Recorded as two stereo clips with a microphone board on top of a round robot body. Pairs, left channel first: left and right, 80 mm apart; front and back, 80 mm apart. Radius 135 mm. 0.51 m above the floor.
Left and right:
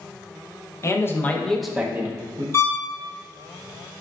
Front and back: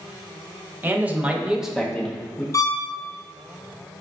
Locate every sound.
0.8 s a man speaking: 120° left, 0.9 m; by 2.4 s 70° right, 0.8 m
2.5 s a violin: 40° left, 0.8 m